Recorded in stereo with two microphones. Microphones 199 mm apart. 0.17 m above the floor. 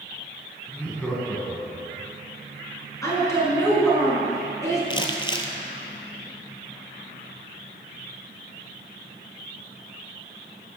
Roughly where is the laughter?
Centre.